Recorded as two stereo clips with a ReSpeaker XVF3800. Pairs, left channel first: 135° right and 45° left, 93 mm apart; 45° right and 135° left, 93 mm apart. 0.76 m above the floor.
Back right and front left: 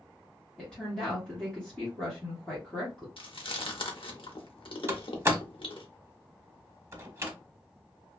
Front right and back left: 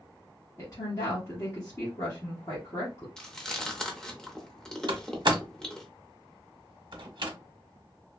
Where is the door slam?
105° left, 0.6 m.